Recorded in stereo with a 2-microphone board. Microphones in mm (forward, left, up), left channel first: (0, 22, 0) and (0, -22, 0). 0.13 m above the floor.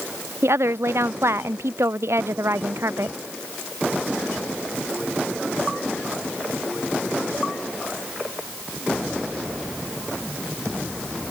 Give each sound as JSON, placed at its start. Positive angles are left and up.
{"t": 0.4, "sound": "a woman speaking", "side_deg": -75}